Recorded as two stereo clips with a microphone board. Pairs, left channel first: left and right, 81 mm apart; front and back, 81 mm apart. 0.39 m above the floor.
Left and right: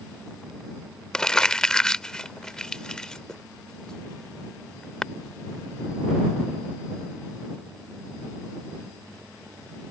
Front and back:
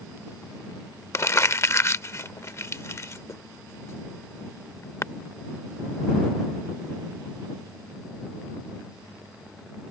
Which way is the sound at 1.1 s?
15° left.